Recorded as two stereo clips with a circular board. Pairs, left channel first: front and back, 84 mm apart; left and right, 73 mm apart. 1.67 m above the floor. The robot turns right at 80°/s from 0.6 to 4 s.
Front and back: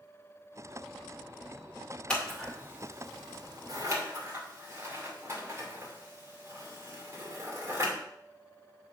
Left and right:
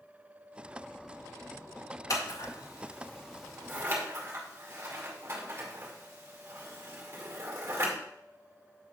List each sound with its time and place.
2.1 s scissors: 75° left, 2 m; by 7.9 s 135° right, 2 m